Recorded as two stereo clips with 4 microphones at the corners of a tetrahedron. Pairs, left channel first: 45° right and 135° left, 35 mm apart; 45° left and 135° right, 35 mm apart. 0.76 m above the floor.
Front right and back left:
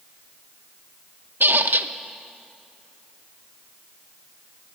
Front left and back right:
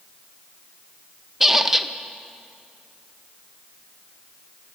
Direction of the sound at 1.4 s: 150° left.